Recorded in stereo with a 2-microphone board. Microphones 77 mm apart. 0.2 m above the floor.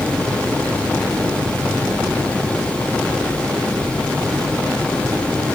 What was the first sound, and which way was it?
Only background noise.